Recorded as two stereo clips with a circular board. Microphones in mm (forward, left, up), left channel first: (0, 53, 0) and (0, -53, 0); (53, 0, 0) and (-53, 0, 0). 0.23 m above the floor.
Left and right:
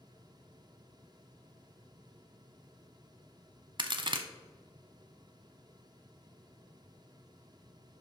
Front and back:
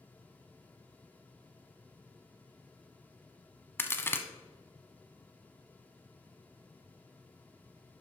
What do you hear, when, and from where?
3.8 s a crack: 65° right, 0.7 m